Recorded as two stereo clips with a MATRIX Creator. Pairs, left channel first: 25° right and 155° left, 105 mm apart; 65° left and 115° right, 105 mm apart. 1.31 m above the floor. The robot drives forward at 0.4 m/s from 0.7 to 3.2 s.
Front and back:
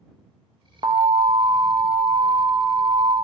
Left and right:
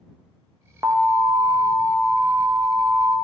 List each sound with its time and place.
0.8 s an alarm: 170° right, 0.7 m; by 3.1 s 175° right, 1.6 m